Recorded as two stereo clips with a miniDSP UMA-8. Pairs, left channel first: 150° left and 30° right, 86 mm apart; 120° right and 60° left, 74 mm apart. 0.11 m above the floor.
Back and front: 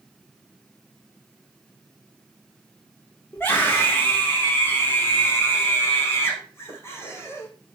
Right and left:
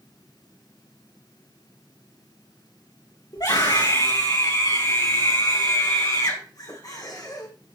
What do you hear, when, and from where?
3.3 s a scream: 145° right, 7.5 m; by 7.5 s 150° right, 5 m